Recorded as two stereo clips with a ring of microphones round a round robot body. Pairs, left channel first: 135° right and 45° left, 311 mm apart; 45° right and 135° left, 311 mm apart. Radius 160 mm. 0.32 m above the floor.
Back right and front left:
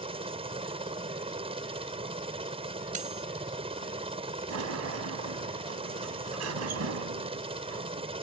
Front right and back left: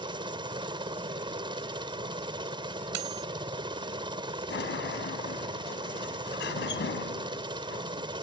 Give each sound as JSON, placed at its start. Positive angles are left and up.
{"t": 0.0, "sound": "a helicopter", "azimuth_deg": 85}
{"t": 2.9, "sound": "cutlery clinking", "azimuth_deg": 110}
{"t": 4.5, "sound": "a sliding door", "azimuth_deg": 10}